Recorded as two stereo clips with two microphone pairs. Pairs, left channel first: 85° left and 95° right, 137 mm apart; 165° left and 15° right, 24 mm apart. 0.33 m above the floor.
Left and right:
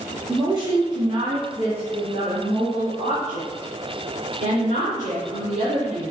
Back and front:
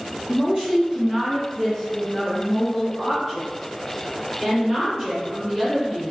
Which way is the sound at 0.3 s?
60° right.